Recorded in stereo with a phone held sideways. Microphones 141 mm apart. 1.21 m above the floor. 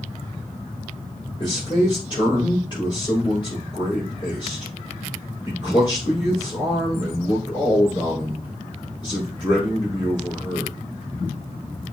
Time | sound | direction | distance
1.4 | a man speaking | 35° left (ahead or behind) | 5.5 m